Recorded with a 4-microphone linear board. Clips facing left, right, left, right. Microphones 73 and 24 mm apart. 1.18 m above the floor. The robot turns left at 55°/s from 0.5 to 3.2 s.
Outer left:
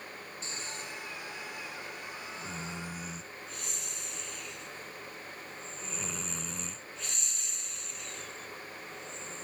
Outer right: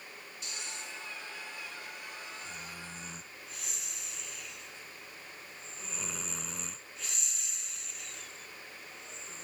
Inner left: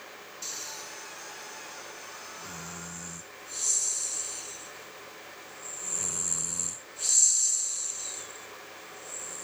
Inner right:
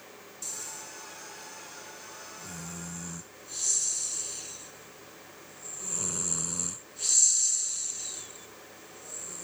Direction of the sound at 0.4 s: 35° left (ahead or behind).